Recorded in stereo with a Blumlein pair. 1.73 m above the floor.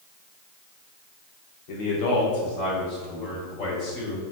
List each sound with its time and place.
1.7 s a man speaking: 45° left, 1.7 m; by 4.2 s 30° left, 4 m